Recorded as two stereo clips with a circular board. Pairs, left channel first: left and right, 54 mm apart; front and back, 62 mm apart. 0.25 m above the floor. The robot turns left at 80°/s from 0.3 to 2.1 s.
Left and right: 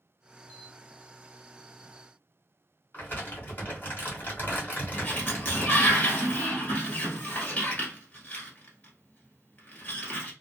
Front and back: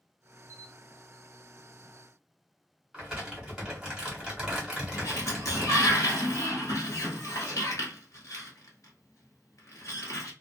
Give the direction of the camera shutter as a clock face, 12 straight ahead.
11 o'clock.